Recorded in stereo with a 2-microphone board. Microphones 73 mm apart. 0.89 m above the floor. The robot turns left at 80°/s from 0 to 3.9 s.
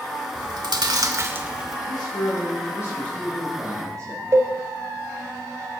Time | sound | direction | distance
0.3 | chewing | 65° right (ahead or behind) | 2.0 m
1.9 | a man speaking | 120° left | 8.5 m
4.3 | a cowbell | 50° right (ahead or behind) | 1.6 m